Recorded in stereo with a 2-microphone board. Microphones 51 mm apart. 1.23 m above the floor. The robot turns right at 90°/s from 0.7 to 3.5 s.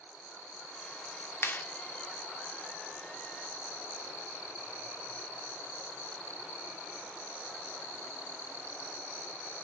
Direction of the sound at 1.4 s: 55° left (ahead or behind).